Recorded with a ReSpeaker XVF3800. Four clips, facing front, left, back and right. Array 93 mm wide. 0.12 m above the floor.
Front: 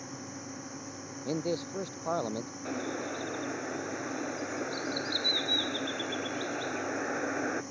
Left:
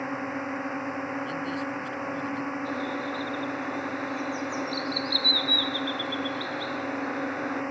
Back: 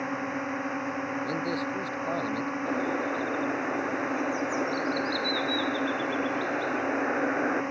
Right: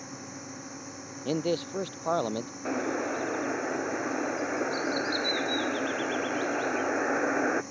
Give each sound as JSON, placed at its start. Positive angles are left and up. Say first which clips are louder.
{"t": 0.0, "sound": "a drone", "louder": "left 11 dB, back 12 dB", "azimuth_deg": 135}
{"t": 1.2, "sound": "a man speaking", "louder": "right 2 dB, back 3 dB", "azimuth_deg": -85}
{"t": 2.6, "sound": "a bird", "louder": "right 1 dB, back 6 dB", "azimuth_deg": -115}